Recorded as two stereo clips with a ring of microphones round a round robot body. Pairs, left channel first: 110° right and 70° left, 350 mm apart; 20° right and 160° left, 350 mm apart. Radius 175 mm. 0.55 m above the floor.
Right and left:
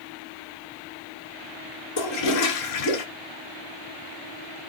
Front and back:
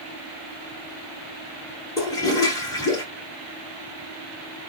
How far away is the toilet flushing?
About 1.5 m.